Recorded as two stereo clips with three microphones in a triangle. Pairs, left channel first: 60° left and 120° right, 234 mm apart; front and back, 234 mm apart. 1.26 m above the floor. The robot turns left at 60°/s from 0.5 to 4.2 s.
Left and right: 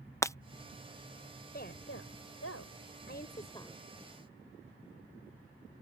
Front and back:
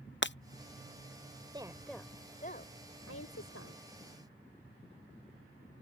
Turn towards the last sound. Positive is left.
turn(degrees=-50)